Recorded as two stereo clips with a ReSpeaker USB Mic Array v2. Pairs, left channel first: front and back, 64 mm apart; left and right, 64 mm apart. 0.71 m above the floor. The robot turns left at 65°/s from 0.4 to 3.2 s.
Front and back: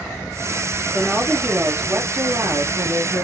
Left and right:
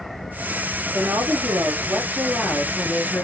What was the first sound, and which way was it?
A woman speaking, 60° right.